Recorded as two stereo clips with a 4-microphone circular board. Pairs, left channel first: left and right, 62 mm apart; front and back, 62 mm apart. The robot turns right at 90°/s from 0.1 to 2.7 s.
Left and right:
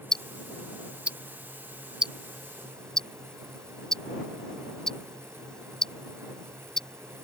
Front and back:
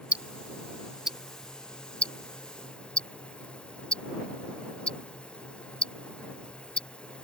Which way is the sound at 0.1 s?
160° left.